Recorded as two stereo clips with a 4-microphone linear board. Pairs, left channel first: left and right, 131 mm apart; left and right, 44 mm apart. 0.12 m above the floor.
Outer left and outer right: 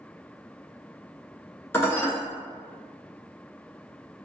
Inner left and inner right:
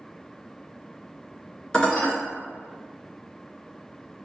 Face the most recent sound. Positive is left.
turn(degrees=20)  # may be behind; listen again after turning